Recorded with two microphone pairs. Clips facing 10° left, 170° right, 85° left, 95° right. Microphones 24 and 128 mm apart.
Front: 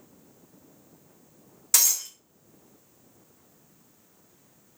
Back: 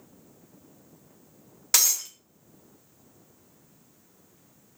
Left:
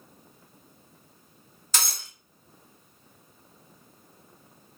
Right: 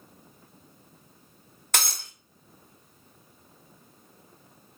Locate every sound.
1.7 s breaking glass: 110° right, 0.7 m